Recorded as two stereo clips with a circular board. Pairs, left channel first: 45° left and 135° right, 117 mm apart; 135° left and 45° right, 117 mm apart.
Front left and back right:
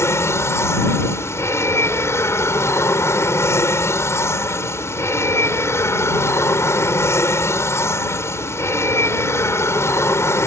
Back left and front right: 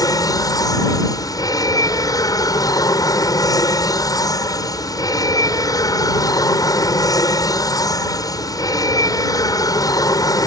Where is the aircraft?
100° left.